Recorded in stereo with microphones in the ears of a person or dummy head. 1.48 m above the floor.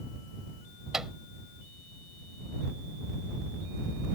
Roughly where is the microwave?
Centre.